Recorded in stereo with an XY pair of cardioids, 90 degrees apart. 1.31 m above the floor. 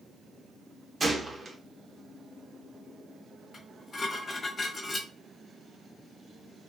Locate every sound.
1.0 s a gunshot: 35° right, 0.7 m
3.5 s dishes clattering: 45° left, 1.4 m